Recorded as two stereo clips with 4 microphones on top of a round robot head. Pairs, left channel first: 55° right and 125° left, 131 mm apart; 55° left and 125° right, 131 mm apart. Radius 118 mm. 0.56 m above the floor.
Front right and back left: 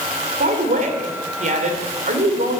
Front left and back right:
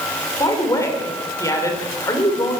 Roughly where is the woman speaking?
Behind left.